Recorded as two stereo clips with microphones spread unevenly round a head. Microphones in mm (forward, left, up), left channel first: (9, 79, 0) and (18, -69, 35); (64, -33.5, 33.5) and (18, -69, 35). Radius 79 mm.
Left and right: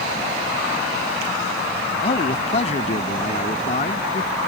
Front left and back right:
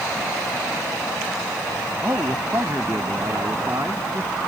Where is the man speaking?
150° left.